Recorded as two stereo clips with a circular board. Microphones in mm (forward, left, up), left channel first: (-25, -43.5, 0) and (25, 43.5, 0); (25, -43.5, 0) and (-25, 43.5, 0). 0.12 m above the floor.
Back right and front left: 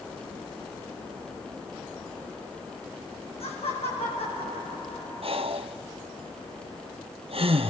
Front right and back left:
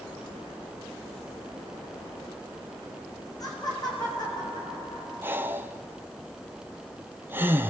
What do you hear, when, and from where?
3.4 s laughter: 110° right, 7 m; by 5.5 s 100° right, 8 m
5.2 s breathing: 50° left, 1.2 m